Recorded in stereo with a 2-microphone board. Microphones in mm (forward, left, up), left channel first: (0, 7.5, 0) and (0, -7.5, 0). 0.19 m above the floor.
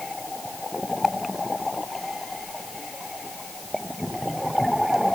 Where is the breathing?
No breathing in this recording.